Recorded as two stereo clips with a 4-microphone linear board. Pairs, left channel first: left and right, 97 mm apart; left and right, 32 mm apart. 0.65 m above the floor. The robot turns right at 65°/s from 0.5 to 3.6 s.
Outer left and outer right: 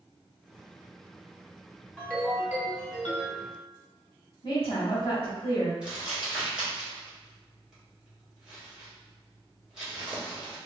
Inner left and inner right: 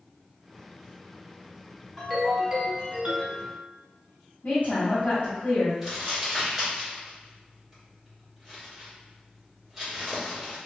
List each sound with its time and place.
2.0 s a ringtone: 165° left, 1.4 m; by 3.5 s 95° right, 1.4 m
4.4 s a woman speaking: 55° left (ahead or behind), 1.4 m
5.8 s crumpling: 10° right (ahead or behind), 1.4 m